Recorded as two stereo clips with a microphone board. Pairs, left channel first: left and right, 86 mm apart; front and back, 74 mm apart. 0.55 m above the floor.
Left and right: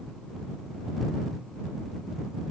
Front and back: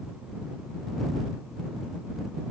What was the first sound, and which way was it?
Only background noise.